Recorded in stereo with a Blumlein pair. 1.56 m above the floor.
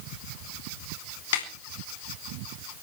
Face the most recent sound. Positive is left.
turn(degrees=55)